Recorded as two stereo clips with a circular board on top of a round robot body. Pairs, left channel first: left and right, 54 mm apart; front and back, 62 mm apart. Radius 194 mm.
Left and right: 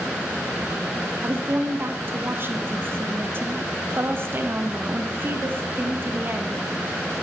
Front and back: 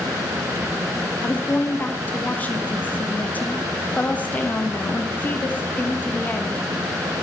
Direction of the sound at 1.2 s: 55° right.